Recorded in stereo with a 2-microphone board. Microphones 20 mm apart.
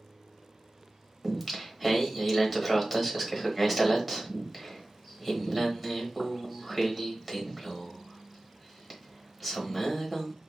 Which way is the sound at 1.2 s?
5° right (ahead or behind).